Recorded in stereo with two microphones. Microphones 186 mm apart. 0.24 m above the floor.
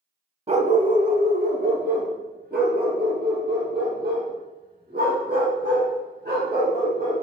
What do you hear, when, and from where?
0.5 s a dog barking: 30° right (ahead or behind), 0.6 m; by 7.2 s 60° right (ahead or behind), 6 m